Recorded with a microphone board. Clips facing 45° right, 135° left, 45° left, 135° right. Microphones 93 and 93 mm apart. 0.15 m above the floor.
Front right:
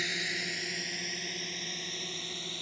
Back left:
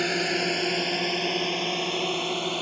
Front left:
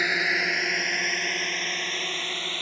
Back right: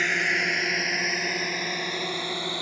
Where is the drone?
125° left; by 2.6 s 150° left.